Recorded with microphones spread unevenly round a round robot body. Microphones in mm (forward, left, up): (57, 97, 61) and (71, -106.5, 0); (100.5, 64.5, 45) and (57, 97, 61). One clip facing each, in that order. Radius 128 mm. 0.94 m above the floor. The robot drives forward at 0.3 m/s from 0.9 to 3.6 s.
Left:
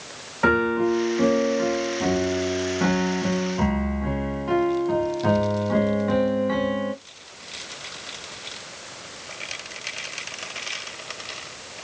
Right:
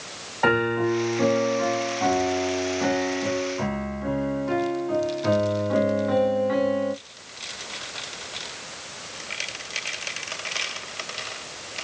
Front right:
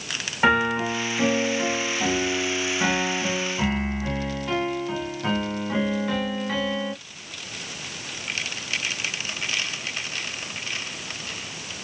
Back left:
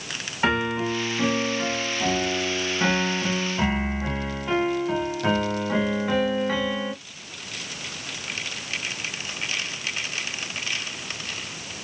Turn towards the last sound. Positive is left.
turn(degrees=65)